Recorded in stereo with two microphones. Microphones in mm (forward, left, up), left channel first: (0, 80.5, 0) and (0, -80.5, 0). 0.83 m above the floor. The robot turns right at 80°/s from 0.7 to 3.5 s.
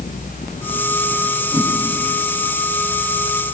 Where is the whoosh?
35° left (ahead or behind), 4 m; by 1.7 s 50° left (ahead or behind), 4 m.